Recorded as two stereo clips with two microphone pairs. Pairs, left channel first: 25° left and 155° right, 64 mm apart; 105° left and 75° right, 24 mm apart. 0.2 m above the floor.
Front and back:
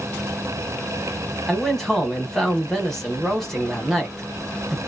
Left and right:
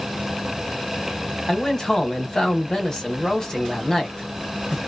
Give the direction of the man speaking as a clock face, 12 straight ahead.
9 o'clock.